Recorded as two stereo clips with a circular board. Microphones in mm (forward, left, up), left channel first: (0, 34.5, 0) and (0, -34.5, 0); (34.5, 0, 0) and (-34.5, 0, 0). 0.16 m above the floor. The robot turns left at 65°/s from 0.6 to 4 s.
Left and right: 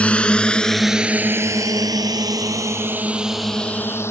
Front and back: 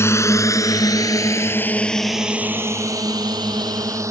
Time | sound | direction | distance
0.0 | a drone | 25° left | ?